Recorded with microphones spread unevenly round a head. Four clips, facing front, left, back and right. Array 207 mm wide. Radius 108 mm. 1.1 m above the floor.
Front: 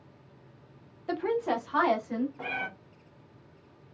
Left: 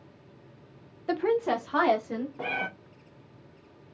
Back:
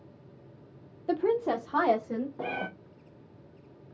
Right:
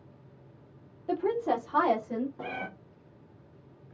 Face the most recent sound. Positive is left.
turn(degrees=160)